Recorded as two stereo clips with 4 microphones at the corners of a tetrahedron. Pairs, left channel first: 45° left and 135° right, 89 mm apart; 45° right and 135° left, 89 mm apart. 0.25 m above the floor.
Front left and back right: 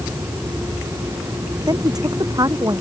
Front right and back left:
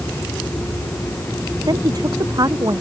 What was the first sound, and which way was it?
A woman speaking, straight behind.